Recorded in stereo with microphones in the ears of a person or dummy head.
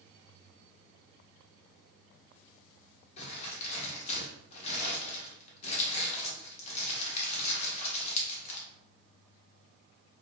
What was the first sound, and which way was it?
Crumpling, 35° left (ahead or behind).